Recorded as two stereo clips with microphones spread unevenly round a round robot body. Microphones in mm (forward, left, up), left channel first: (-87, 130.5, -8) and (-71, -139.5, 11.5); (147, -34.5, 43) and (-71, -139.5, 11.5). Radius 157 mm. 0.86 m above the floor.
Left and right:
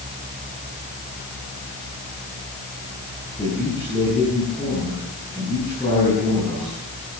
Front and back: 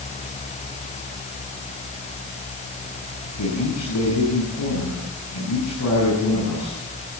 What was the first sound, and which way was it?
A man speaking, 15° left.